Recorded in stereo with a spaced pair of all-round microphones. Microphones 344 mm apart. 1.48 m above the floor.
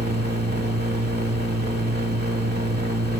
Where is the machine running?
30° right (ahead or behind), 1.5 m.